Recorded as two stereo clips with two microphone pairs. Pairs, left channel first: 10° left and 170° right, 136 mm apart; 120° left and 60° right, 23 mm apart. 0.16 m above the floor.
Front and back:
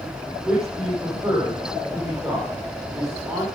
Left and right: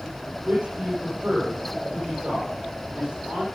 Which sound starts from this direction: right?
A man speaking, at 0.4 s.